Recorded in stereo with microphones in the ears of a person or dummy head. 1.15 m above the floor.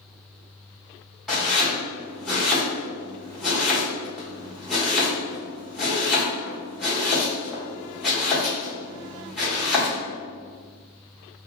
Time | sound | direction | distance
1.3 | chopping | centre (ahead or behind) | 1.4 m